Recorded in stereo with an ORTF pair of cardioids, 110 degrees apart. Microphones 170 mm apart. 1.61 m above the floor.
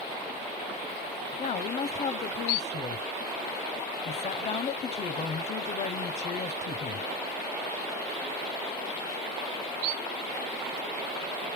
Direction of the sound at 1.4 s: 45° left.